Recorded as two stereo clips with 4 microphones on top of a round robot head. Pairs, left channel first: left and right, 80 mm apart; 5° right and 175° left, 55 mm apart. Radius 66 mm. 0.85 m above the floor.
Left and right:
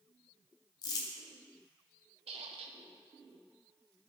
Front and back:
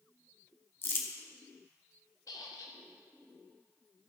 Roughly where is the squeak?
Ahead right.